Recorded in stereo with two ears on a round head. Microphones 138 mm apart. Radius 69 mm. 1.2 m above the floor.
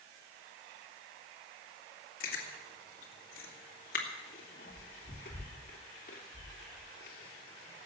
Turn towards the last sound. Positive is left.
turn(degrees=60)  # may be behind; listen again after turning